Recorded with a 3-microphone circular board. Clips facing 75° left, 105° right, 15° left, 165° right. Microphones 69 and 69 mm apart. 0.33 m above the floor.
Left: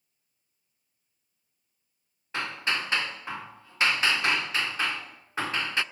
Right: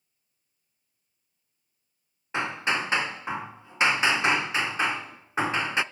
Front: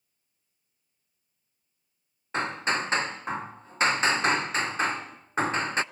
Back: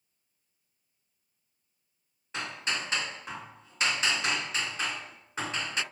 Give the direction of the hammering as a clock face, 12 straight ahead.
1 o'clock.